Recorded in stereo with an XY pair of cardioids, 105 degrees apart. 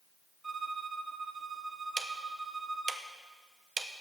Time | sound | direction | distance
0.4 | a violin | 25° right | 0.7 m
2.0 | ticking | 40° right | 0.8 m